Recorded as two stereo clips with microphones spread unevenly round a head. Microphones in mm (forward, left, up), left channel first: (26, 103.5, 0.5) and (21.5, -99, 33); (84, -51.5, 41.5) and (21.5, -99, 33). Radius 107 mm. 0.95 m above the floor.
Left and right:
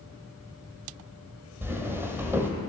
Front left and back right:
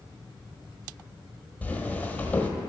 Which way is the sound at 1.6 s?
20° right.